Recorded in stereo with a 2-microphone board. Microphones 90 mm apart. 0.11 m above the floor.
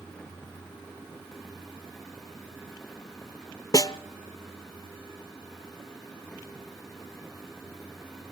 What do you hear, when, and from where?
3.7 s a snare drum: 40° left (ahead or behind), 0.7 m